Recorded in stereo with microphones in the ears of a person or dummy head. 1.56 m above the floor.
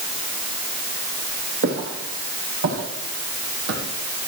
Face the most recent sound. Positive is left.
turn(degrees=-70)  # may be behind; listen again after turning